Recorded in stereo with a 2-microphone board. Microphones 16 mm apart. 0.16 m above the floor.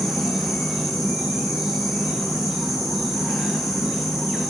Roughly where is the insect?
Right.